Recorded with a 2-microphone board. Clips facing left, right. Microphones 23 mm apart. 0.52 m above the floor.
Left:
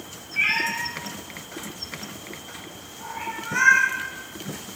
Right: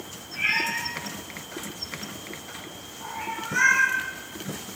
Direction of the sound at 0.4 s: 70° left (ahead or behind).